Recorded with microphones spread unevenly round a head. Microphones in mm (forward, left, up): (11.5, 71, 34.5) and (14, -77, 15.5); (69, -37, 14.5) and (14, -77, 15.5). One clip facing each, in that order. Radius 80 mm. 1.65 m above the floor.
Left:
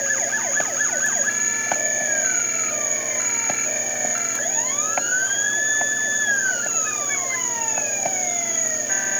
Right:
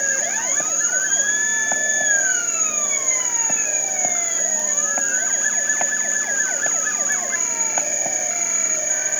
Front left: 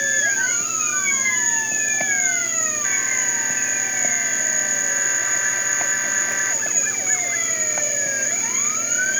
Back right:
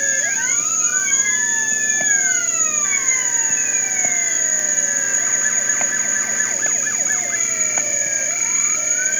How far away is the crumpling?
I don't hear crumpling.